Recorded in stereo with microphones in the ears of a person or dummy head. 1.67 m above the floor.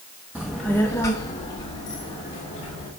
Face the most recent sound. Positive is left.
turn(degrees=25)  # may be behind; listen again after turning